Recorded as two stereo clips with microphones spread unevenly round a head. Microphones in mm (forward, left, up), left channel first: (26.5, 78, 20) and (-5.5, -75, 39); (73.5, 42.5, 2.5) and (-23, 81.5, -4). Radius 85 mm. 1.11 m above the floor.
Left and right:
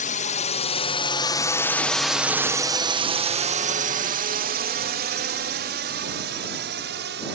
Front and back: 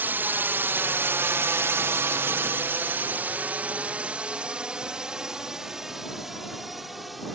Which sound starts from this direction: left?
A drone, at 0.0 s.